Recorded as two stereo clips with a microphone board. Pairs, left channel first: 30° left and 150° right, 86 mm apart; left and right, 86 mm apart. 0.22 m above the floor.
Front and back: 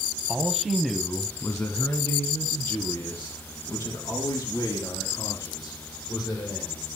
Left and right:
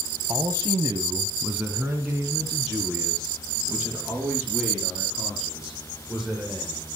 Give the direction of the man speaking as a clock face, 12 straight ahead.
3 o'clock.